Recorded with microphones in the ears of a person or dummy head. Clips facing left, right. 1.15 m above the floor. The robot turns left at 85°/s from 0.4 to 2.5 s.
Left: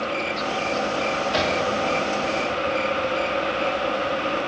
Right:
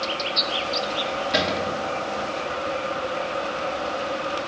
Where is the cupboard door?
20° right, 2.5 m; by 1.8 s 65° right, 2.5 m.